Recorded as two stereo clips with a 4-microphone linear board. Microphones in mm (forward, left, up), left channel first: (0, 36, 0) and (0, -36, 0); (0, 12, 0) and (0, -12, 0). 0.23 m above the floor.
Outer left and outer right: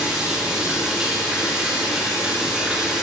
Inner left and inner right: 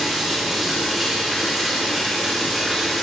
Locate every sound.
0.0 s running water: 10° right (ahead or behind), 7.5 m